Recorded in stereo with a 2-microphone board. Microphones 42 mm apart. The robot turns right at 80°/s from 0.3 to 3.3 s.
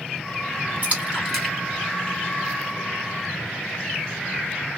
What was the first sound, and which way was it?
A splash, 40° right (ahead or behind).